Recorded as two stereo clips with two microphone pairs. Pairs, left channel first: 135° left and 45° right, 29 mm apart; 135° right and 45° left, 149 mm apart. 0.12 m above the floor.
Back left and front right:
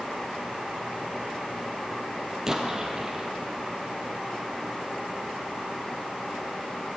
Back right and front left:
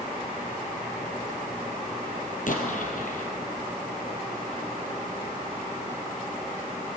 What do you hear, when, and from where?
2.5 s an explosion: 115° right, 3 m